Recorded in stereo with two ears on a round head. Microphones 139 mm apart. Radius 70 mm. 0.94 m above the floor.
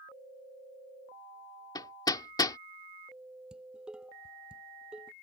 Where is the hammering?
25° left (ahead or behind).